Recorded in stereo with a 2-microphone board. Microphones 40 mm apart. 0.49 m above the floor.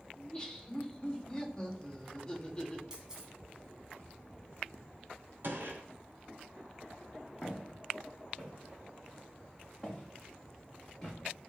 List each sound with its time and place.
0.2 s laughter: 25° left (ahead or behind), 1.7 m
2.9 s a camera shutter: 15° right (ahead or behind), 2.0 m
5.4 s a gunshot: 75° right (ahead or behind), 2.5 m
7.4 s footsteps: 25° left (ahead or behind), 4 m; by 11.2 s 10° left (ahead or behind), 6 m